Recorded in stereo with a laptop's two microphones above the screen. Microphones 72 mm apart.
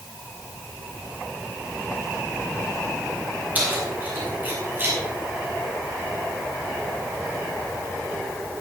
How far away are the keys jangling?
About 5.5 m.